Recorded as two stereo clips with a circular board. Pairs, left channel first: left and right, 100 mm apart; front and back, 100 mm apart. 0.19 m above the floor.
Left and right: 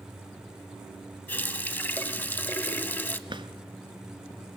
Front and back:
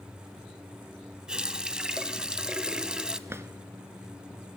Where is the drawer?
115° right, 1.1 m.